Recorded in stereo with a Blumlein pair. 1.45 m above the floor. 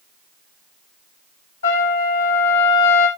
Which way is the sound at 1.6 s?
65° left.